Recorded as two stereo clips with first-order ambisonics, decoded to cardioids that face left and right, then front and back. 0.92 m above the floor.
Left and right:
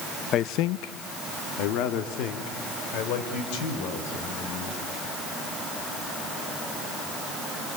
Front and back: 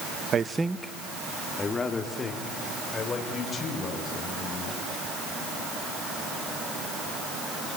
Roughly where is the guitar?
No guitar in this recording.